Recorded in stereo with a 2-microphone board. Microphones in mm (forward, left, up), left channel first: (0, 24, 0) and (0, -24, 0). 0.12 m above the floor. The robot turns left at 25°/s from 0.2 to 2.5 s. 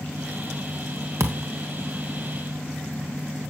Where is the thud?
85° right, 2 m; by 1.4 s 75° right (ahead or behind), 2 m.